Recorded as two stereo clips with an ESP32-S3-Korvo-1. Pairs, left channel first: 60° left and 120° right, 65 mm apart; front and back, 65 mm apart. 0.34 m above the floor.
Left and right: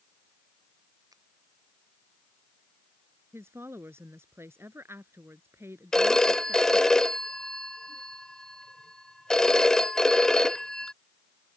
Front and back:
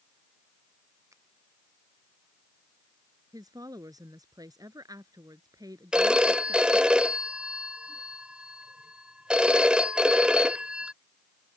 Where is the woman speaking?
170° right.